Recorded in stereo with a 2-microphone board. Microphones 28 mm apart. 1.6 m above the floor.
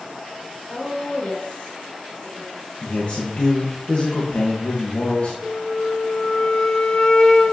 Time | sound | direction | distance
0.7 | a woman speaking | 55° left (ahead or behind) | 2.5 m
2.8 | a man speaking | 50° left (ahead or behind) | 1.4 m
5.4 | a flute | 35° left (ahead or behind) | 0.6 m